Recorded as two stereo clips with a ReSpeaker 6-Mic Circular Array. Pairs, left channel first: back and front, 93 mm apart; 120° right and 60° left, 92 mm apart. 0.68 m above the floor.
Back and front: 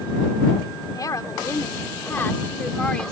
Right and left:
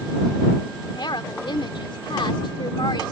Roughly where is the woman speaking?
Behind right.